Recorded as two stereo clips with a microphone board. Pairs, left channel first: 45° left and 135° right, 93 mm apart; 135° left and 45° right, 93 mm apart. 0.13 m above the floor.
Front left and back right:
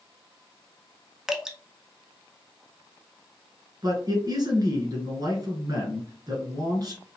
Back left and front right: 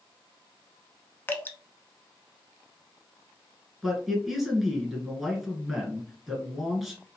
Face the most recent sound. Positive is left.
turn(degrees=-130)